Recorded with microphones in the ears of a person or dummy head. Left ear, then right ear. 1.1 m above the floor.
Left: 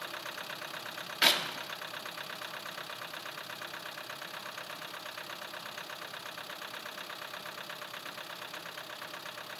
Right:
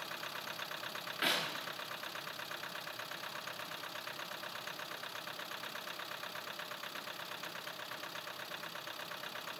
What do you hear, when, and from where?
1.2 s a clap: 35° left (ahead or behind), 1.7 m